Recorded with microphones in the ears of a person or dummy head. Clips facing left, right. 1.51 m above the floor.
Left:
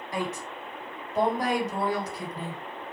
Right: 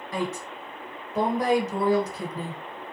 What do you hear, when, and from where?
0.1 s a woman speaking: 80° right, 1.3 m